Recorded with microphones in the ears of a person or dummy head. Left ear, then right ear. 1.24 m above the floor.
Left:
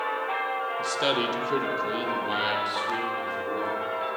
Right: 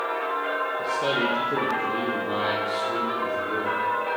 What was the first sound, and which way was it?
A man speaking, 65° left (ahead or behind).